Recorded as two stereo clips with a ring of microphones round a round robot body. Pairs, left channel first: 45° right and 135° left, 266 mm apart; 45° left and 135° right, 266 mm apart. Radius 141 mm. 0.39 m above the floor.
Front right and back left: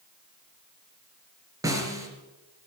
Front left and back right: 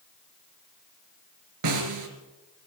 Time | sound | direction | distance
1.6 | a snare drum | 145° right | 4 m